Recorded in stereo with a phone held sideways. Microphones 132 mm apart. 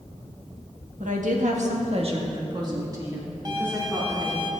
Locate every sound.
1.0 s a woman speaking: 75° right (ahead or behind), 1.6 m; by 4.5 s 5° right (ahead or behind), 3.5 m
3.5 s a violin: 30° right (ahead or behind), 1.2 m